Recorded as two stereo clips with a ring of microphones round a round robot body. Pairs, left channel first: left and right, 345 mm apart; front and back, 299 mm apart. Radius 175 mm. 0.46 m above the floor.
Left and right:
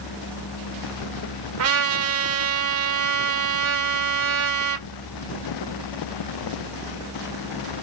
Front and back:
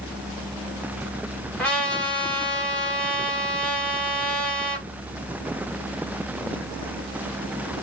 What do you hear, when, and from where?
1.6 s a trumpet: 85° right, 1.1 m